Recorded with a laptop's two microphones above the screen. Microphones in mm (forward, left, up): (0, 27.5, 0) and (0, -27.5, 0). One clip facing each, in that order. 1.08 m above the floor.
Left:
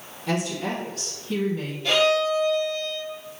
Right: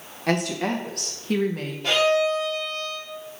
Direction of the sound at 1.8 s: 65° right (ahead or behind).